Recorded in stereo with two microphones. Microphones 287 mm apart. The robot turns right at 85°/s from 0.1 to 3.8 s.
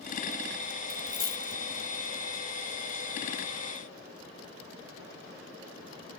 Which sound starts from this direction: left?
A dropped coin, at 0.9 s.